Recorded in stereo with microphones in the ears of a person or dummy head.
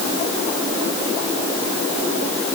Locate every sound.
Only background noise.